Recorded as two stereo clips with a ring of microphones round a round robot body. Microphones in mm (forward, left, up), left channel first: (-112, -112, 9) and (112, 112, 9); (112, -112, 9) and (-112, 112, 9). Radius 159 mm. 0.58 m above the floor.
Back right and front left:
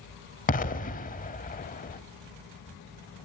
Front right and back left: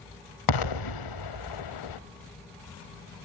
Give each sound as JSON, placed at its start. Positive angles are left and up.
{"t": 0.5, "sound": "an explosion", "azimuth_deg": -70, "distance_m": 0.9}